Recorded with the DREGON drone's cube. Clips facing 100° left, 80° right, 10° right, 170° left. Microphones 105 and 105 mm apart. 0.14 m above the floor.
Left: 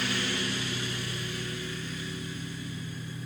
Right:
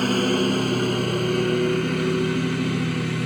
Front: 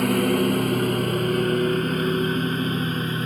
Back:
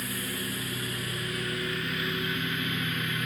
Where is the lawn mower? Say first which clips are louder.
Right 12 dB, front 16 dB; 35° right; by 3.3 s 65° right.